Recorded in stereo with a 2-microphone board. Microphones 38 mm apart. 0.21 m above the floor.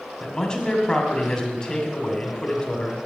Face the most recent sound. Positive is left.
turn(degrees=20)  # may be behind; listen again after turning